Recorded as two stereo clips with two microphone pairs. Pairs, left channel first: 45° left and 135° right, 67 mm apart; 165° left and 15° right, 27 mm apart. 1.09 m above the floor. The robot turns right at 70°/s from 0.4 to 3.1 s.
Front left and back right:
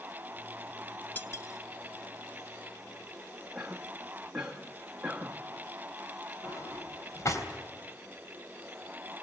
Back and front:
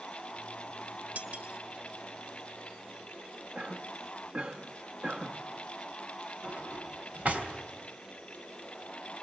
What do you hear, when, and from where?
1.1 s cutlery clinking: 15° right, 1.0 m; by 1.6 s 20° left, 1.0 m
3.5 s a cough: 50° right, 1.3 m
6.4 s a drawer: 10° left, 3 m